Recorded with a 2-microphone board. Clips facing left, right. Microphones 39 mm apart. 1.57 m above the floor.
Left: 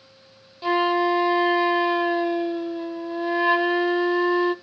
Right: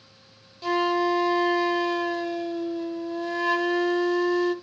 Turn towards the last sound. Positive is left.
turn(degrees=20)  # may be behind; listen again after turning